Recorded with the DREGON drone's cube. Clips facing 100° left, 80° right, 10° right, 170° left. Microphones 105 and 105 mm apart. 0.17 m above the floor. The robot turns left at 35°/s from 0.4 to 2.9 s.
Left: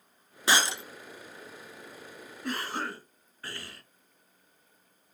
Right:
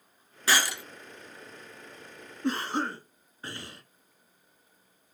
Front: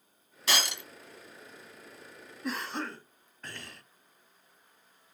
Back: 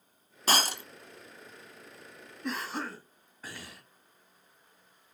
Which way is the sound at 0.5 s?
160° left.